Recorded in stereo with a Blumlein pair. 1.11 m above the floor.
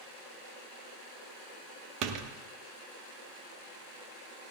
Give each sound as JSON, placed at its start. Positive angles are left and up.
{"t": 2.0, "sound": "a door slam", "azimuth_deg": -40, "distance_m": 1.2}